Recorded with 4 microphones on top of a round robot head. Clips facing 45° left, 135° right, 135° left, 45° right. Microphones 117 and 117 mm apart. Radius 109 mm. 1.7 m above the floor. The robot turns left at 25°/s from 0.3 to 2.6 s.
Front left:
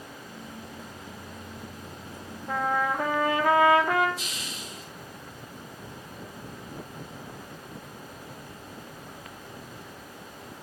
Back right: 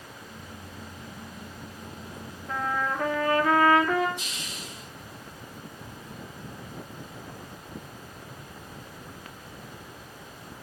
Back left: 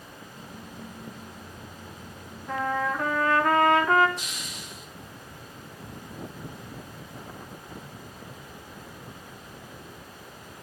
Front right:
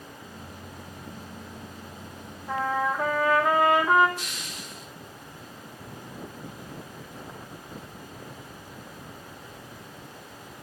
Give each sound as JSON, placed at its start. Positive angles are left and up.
{"t": 2.5, "sound": "a trumpet", "azimuth_deg": 35, "distance_m": 1.0}
{"t": 4.2, "sound": "a hiss", "azimuth_deg": 45, "distance_m": 7.5}